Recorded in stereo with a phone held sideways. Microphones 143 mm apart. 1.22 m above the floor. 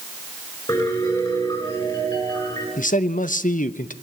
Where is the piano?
30° left (ahead or behind), 10 m.